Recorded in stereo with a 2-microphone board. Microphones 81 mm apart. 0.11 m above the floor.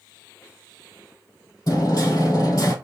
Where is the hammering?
45° left (ahead or behind), 2 m.